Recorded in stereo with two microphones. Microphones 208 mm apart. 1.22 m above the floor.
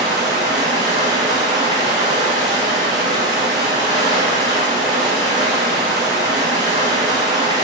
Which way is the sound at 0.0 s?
20° right (ahead or behind).